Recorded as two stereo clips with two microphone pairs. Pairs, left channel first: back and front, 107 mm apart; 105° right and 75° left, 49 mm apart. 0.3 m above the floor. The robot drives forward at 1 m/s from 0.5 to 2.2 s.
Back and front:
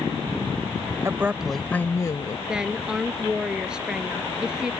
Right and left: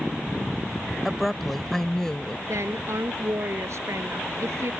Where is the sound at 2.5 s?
80° left.